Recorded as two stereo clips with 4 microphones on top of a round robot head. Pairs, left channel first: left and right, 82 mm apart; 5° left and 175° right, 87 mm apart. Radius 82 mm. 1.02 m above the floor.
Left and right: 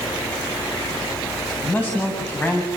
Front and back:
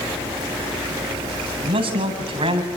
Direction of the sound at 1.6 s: 165° left.